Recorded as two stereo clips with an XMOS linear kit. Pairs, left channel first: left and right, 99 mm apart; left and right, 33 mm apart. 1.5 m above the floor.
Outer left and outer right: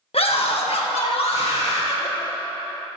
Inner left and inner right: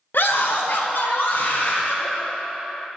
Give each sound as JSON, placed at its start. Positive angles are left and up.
{"t": 0.1, "sound": "a scream", "side_deg": 75, "distance_m": 1.3}